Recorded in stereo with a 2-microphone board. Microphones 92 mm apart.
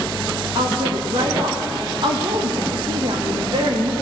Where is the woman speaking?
60° right (ahead or behind), 0.9 m.